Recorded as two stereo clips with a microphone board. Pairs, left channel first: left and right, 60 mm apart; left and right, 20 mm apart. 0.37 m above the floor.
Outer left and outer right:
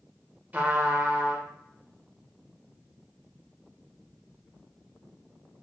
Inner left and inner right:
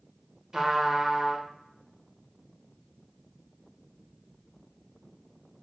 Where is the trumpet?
30° right (ahead or behind), 0.6 m.